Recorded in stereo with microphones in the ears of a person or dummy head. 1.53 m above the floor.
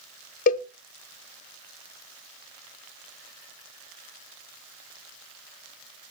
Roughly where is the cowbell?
Left.